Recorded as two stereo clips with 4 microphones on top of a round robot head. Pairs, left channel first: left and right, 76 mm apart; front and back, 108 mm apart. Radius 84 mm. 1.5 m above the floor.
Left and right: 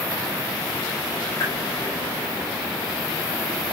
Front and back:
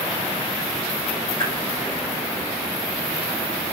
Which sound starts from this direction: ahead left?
A whoosh, at 1.4 s.